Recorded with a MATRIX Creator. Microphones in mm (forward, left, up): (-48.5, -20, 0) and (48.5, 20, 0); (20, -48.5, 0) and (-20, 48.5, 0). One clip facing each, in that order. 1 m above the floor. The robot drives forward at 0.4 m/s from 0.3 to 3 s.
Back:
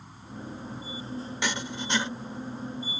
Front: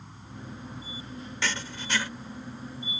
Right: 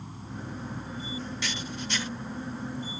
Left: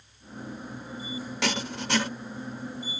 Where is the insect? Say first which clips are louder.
Back 3 dB, right 3 dB; 75° right; by 3.0 s 85° right.